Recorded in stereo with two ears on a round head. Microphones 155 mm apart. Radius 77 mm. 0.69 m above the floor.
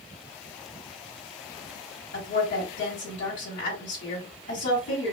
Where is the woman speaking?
75° left (ahead or behind), 3 m.